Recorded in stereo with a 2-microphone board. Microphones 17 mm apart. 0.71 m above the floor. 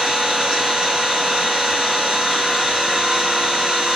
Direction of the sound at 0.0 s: 55° right (ahead or behind).